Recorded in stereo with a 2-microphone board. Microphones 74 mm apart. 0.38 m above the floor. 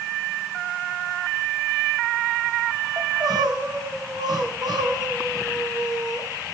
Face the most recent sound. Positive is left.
turn(degrees=-65)  # may be behind; listen again after turning